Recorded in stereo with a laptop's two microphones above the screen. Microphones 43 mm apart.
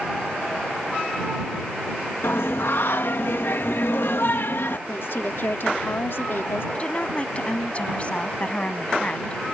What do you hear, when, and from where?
2.2 s singing: 65° left (ahead or behind)
4.9 s a woman speaking: 65° left (ahead or behind)
6.8 s a woman speaking: 30° left (ahead or behind)